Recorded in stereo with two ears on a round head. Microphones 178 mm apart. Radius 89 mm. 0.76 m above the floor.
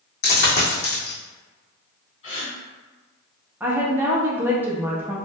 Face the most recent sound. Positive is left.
turn(degrees=-10)  # may be behind; listen again after turning